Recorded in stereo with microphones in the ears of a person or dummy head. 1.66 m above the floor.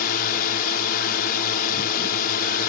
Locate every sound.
0.0 s a drone: 50° left (ahead or behind)